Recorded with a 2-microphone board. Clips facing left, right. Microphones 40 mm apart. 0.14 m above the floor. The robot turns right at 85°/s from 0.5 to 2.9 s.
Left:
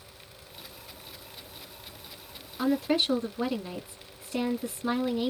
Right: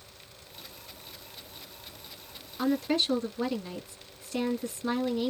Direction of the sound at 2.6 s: Centre (ahead or behind).